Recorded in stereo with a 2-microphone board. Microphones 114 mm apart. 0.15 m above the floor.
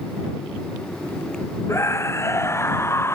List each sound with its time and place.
1.7 s a scream: 25° left (ahead or behind); by 3.1 s 20° left (ahead or behind)